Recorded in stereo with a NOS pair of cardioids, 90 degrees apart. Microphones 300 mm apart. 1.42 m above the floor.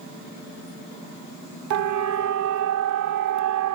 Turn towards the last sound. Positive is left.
turn(degrees=-75)